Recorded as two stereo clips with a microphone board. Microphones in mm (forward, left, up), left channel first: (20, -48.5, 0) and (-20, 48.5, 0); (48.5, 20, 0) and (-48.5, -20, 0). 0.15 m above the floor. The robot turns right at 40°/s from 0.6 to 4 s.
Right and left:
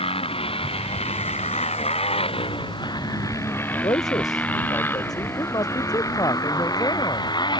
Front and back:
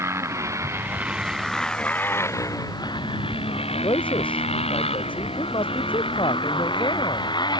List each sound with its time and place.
0.0 s a motorcycle: 95° right; by 7.6 s 25° right
3.8 s a man speaking: 20° right; by 7.3 s 15° right